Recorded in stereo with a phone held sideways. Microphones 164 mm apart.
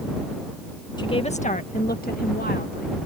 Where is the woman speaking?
25° left (ahead or behind); by 3.1 s 80° left.